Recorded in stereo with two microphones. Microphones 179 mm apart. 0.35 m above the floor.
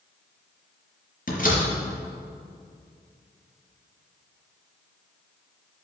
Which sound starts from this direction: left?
A door slam, at 1.3 s.